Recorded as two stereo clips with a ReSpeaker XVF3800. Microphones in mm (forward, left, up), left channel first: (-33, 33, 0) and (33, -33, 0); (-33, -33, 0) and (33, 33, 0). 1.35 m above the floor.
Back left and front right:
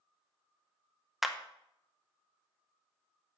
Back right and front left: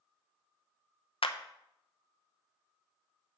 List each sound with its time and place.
1.2 s a clap: 130° right, 0.7 m